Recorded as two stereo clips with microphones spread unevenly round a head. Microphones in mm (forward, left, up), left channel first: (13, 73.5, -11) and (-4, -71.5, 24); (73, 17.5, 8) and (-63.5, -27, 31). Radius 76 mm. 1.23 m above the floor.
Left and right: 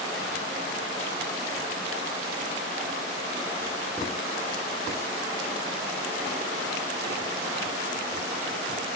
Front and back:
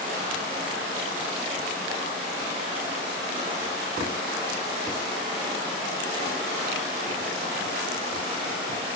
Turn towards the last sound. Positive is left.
No sound to turn to.